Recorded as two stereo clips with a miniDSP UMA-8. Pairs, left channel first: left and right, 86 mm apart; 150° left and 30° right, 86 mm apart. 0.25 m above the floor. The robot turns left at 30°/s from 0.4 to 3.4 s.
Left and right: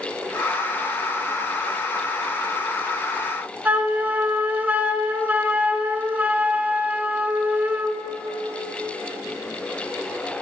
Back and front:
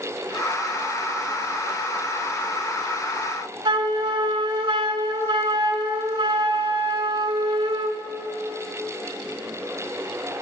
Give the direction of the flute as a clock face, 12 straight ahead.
1 o'clock.